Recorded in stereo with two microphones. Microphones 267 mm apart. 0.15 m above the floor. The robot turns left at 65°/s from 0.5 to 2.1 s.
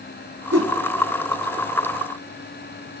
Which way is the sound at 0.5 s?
60° right (ahead or behind).